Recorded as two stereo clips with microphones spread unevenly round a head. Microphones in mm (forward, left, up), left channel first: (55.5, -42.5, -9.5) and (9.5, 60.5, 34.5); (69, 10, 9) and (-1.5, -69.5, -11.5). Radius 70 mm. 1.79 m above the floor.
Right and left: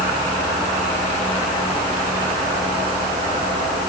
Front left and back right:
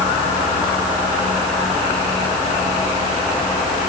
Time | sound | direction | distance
0.0 | a fan | 70° left | ?